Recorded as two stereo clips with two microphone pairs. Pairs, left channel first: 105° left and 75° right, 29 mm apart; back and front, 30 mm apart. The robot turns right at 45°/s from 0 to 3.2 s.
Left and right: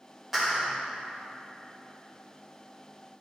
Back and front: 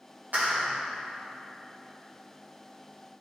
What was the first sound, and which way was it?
A clap, 5° left.